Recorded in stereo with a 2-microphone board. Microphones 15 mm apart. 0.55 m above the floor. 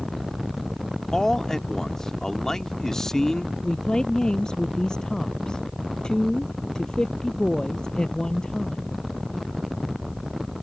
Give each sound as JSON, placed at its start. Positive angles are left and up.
{"t": 1.1, "sound": "a man speaking", "side_deg": 35}
{"t": 3.6, "sound": "a woman speaking", "side_deg": 55}